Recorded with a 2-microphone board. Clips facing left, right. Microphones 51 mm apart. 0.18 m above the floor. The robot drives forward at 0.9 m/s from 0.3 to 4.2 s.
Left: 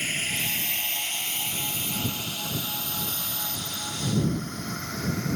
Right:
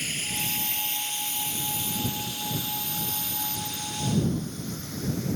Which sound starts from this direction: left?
A drone, at 0.0 s.